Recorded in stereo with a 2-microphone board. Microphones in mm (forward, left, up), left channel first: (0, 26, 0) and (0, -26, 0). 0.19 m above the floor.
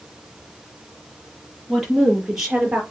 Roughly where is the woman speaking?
Centre.